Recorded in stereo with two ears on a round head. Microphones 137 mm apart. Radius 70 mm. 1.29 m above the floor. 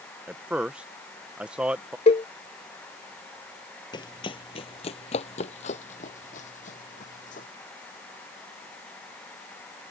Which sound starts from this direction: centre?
A man speaking, at 0.3 s.